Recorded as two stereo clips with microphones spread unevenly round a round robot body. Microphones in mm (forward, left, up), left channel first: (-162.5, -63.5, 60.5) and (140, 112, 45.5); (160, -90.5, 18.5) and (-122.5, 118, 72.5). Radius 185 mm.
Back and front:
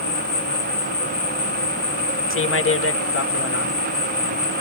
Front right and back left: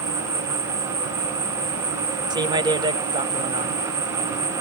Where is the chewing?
No chewing in this recording.